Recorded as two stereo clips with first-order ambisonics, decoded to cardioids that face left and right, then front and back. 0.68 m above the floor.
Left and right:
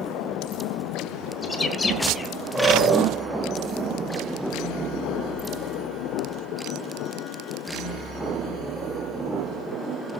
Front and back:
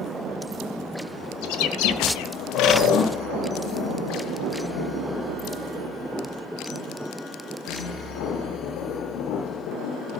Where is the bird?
10° left, 1.6 m.